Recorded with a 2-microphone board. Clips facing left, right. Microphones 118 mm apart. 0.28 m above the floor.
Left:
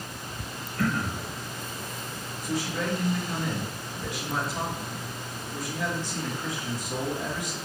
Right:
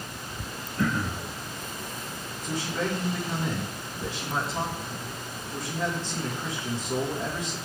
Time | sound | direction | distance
0.8 | throat clearing | 20° right (ahead or behind) | 1.3 m
2.4 | a man speaking | 30° right (ahead or behind) | 3.5 m